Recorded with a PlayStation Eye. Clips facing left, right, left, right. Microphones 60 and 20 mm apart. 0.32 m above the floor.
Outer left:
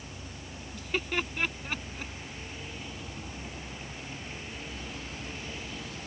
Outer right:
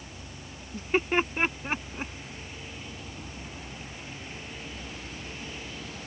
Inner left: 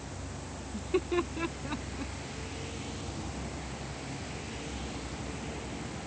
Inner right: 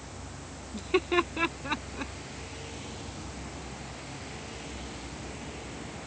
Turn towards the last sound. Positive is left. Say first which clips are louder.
# outer right 6 dB, inner right 4 dB
turn(degrees=-30)  # may be behind; listen again after turning